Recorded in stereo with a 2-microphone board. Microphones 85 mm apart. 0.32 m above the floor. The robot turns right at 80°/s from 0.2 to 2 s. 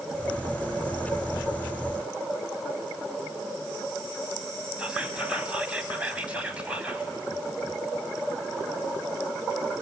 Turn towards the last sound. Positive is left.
turn(degrees=-15)  # may be behind; listen again after turning